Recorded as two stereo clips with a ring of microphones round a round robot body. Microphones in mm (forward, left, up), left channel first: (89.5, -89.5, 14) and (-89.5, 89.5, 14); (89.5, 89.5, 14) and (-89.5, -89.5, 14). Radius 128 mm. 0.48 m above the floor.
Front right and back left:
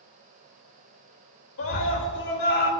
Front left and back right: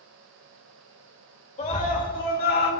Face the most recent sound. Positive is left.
turn(degrees=5)